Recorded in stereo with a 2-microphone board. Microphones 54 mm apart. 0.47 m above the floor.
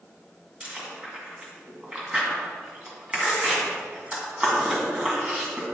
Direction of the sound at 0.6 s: 20° right (ahead or behind).